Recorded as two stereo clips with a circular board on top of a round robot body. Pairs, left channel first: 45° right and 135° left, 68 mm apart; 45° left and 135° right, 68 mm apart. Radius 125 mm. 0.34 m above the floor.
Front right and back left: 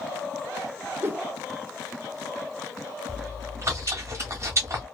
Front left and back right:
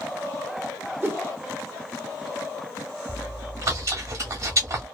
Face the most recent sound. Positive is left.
turn(degrees=-175)